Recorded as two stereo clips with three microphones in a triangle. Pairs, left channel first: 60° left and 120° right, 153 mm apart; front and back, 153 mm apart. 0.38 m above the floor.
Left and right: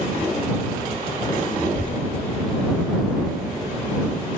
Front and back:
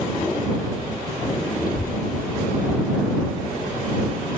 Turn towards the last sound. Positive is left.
turn(degrees=-35)